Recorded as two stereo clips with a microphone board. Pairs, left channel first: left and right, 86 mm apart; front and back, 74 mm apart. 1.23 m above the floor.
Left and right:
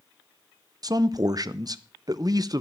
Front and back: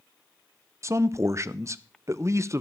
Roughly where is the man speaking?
Behind right.